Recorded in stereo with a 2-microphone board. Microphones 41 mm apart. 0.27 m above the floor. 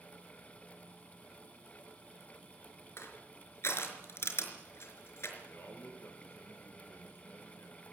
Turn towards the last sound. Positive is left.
turn(degrees=60)  # may be behind; listen again after turning